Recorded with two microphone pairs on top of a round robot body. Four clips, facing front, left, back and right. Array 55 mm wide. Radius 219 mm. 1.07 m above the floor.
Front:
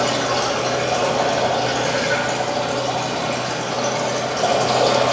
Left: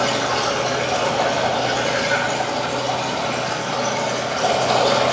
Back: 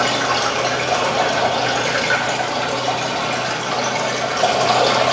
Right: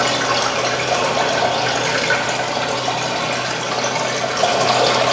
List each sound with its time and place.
0.0 s running water: 130° right, 3.5 m